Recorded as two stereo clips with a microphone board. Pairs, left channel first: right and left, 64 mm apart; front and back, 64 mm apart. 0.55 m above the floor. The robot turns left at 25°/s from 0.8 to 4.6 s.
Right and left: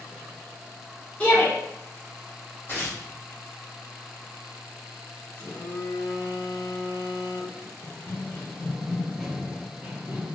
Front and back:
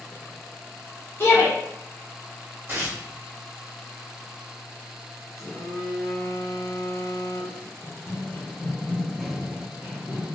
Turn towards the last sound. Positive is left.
turn(degrees=135)